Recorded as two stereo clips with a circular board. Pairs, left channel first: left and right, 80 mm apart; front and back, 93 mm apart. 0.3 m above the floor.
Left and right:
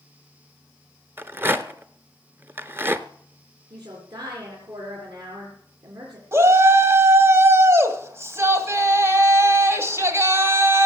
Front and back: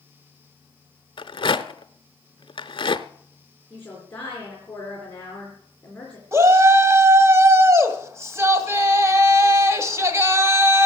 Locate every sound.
1.2 s a rattle: 30° right, 0.7 m
3.7 s a woman speaking: 75° right, 4 m
6.3 s a shout: 130° right, 2 m